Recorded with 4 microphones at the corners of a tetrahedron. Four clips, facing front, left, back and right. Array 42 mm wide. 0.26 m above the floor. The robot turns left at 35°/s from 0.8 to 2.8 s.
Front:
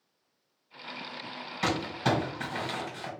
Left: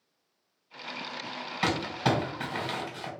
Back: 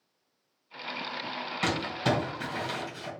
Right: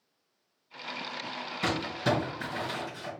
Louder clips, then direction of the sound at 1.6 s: Left 2 dB, even; 105° left.